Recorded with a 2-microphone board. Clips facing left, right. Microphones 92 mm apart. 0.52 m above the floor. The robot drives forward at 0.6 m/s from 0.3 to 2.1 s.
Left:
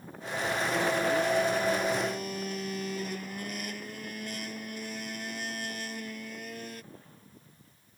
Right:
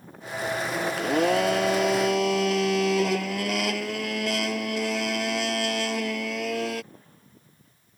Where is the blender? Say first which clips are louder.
Right 7 dB; 85° right.